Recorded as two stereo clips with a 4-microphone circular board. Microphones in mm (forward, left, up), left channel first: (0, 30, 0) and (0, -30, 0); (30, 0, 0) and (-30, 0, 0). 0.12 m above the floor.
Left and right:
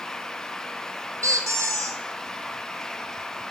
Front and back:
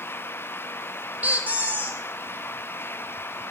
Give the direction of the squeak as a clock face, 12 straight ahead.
4 o'clock.